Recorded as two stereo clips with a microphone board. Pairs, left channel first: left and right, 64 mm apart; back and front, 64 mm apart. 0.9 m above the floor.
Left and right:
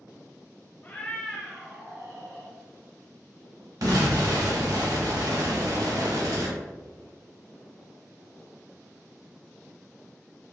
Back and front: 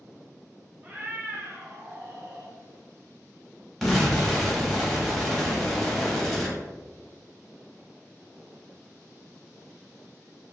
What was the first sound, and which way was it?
A cat meowing, 40° left.